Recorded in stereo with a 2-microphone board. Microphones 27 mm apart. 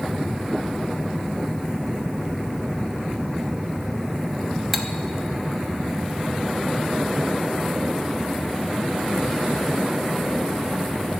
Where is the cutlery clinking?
5° right (ahead or behind), 0.6 m.